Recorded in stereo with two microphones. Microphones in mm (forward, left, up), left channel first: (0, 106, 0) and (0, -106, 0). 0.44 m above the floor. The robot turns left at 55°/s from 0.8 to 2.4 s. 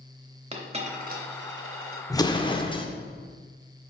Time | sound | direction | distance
0.5 | a dropped coin | 30° right (ahead or behind) | 1.0 m
2.1 | an explosion | 15° left (ahead or behind) | 0.6 m